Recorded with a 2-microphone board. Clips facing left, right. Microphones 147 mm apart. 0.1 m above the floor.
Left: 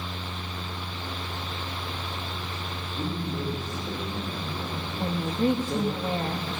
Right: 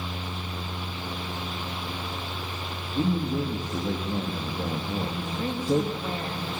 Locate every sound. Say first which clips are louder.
2.9 s a man speaking: right 6 dB; 65° right (ahead or behind), 9.5 m
5.0 s a woman speaking: left 4 dB; 20° left (ahead or behind), 4.5 m